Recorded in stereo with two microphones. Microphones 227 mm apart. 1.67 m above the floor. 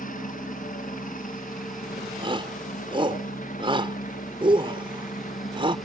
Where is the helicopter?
35° left (ahead or behind).